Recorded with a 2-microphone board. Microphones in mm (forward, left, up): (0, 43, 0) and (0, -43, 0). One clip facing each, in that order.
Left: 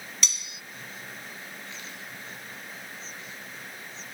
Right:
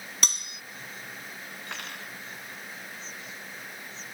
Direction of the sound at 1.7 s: 65° right (ahead or behind).